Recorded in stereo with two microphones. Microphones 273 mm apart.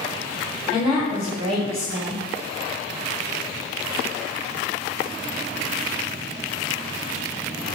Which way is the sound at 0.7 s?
20° right (ahead or behind).